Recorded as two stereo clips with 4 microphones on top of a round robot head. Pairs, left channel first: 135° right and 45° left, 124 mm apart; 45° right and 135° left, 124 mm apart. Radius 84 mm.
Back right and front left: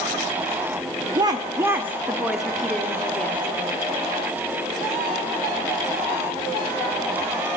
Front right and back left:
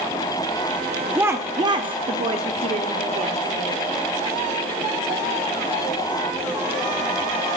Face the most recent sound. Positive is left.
turn(degrees=150)